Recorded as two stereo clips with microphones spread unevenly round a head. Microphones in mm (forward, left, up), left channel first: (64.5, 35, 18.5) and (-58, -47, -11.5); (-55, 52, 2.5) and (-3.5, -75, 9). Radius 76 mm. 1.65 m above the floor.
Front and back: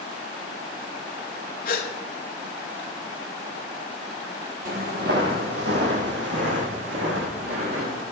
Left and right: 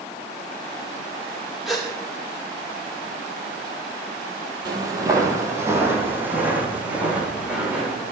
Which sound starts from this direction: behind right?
Footsteps, at 4.7 s.